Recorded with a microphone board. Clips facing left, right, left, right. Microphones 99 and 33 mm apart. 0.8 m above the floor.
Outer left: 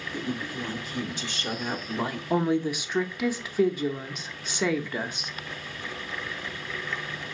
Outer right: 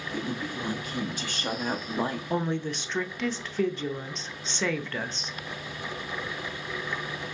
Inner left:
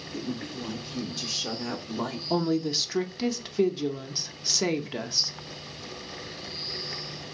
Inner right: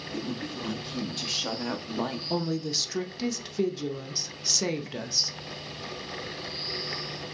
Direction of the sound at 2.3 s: 10° left (ahead or behind).